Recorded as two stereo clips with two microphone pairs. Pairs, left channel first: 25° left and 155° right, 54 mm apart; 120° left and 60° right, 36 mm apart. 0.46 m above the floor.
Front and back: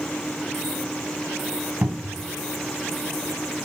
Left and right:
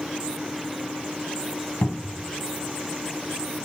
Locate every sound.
1.8 s a cupboard door: 150° left, 2.5 m